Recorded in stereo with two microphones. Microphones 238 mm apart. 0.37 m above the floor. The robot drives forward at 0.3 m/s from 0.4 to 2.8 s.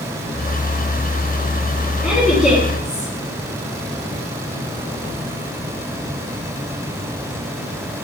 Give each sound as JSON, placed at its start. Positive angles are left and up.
{"t": 2.0, "sound": "a woman speaking", "side_deg": -5, "distance_m": 3.5}